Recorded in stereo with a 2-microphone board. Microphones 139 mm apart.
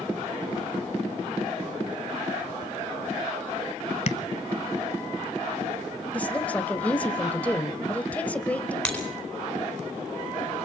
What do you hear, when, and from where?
4.1 s tapping: 50° left (ahead or behind), 0.8 m
6.1 s a woman speaking: 10° left (ahead or behind), 1.1 m
8.8 s breaking glass: 10° left (ahead or behind), 4.5 m